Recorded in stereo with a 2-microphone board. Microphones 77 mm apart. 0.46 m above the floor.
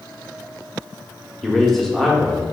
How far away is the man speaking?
About 0.7 m.